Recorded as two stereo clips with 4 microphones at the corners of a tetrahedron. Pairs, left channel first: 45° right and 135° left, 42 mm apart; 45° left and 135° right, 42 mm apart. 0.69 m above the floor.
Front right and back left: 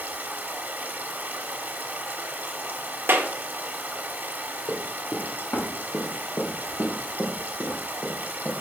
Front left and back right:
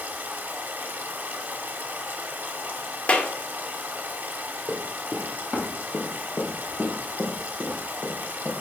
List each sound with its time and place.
0.0 s running water: 175° right, 1.1 m
3.1 s a clap: 100° left, 0.9 m
4.7 s running footsteps: 50° right, 2.5 m; by 8.5 s 20° left, 3 m